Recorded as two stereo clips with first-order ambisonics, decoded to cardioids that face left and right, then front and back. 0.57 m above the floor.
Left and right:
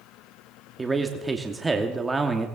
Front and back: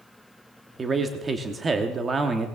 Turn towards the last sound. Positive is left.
turn(degrees=-150)